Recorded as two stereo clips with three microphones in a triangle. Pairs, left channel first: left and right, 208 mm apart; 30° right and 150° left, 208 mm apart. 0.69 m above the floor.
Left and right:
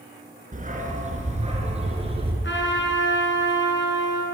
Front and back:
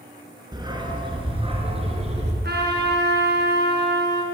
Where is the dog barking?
140° right, 3.5 m; by 2.3 s 150° right, 4 m.